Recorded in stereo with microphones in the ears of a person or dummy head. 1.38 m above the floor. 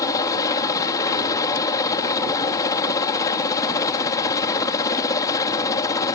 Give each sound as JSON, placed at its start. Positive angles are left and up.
{"t": 0.0, "sound": "a helicopter", "side_deg": 20}